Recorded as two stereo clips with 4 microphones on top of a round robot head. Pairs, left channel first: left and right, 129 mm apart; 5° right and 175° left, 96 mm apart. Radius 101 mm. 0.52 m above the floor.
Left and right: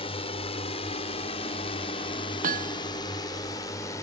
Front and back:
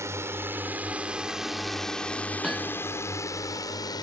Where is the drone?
120° left; by 4.0 s 25° left.